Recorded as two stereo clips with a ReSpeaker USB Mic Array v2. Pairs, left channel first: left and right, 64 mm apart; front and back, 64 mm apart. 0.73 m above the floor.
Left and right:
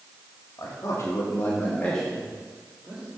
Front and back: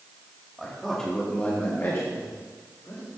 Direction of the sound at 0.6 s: 90° left.